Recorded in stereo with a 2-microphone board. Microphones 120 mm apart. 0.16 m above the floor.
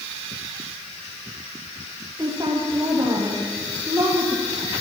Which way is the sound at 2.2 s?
30° right (ahead or behind).